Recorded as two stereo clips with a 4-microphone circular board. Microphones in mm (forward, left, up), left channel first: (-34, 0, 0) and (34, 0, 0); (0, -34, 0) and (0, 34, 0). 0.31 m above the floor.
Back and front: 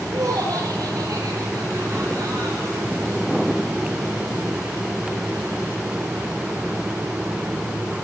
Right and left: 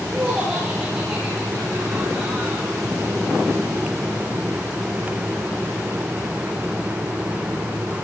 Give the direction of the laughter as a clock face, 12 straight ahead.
11 o'clock.